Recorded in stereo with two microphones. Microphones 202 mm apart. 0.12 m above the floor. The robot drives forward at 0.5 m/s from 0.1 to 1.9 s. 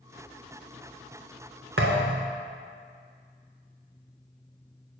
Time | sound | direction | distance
1.8 | a thud | 75° right (ahead or behind) | 1.0 m